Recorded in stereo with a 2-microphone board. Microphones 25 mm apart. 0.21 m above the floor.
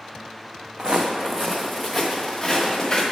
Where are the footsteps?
45° right (ahead or behind), 0.7 m; by 3.0 s 20° left (ahead or behind), 1.5 m.